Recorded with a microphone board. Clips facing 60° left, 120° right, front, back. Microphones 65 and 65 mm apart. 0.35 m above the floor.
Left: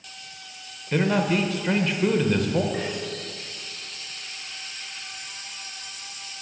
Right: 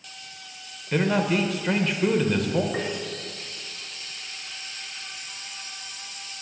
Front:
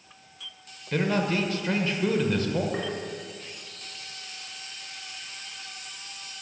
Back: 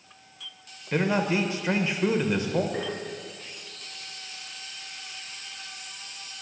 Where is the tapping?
60° right, 2.5 m.